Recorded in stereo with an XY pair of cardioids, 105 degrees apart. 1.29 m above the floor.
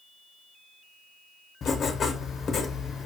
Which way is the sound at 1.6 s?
50° left.